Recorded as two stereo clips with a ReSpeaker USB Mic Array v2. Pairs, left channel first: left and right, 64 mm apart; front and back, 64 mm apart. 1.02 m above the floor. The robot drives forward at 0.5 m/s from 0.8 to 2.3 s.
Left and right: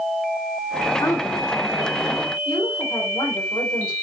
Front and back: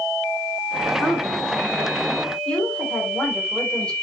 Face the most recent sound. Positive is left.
turn(degrees=80)